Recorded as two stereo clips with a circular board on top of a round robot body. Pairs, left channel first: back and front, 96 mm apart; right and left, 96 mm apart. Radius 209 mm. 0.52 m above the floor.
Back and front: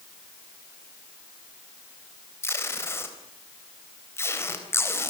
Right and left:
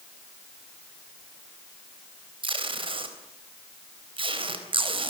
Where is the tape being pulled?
115° left, 4 m.